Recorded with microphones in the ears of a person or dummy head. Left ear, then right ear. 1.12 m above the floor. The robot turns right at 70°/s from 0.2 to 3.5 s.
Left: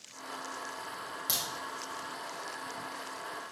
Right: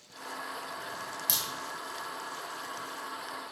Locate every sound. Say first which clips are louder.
1.3 s a crack: right 1 dB; 5° right (ahead or behind), 1.4 m; by 1.4 s 5° left (ahead or behind), 1.4 m